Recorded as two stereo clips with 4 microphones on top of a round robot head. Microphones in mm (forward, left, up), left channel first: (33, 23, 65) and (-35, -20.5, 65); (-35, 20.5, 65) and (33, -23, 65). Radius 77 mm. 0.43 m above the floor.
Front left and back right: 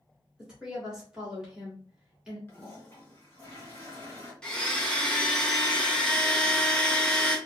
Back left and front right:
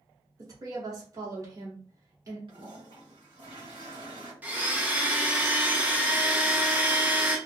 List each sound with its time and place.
0.4 s a woman speaking: 70° right, 2.0 m
2.5 s a toilet flushing: 30° right, 1.9 m
4.4 s a blender: 30° right, 1.1 m